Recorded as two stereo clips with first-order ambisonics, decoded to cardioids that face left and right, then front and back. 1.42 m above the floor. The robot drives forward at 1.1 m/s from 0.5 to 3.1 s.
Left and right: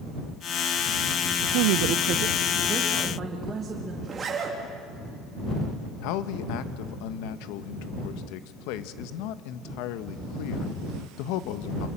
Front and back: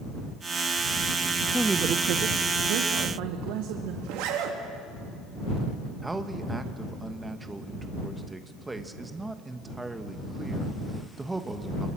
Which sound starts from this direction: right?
A man speaking, at 1.5 s.